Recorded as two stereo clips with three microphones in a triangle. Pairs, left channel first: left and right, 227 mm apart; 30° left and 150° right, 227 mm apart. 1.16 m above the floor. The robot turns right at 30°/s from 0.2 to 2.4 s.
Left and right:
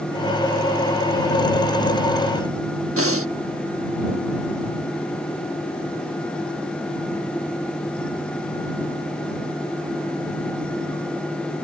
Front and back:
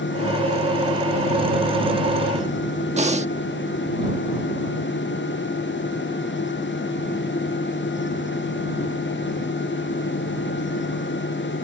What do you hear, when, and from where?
3.0 s breathing: 90° right